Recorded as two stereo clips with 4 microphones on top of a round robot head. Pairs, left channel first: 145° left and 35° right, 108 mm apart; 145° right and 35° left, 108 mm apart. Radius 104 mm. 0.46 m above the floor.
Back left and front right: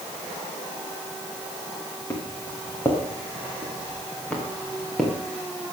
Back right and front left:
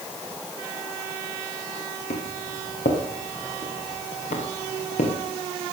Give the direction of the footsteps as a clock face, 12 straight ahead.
5 o'clock.